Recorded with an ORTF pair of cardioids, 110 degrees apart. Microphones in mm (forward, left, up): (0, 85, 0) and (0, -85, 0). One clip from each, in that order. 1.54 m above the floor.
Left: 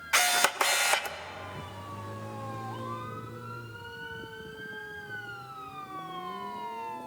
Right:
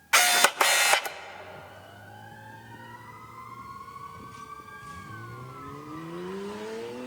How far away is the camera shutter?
About 0.6 m.